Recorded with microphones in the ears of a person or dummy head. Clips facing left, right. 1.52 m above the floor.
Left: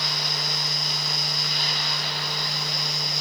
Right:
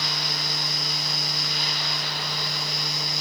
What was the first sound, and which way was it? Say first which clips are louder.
A fan: even; 5° right (ahead or behind).